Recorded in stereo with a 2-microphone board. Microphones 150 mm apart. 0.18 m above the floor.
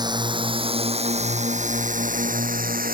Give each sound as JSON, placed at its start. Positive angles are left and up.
{"t": 0.0, "sound": "a drone", "side_deg": -25}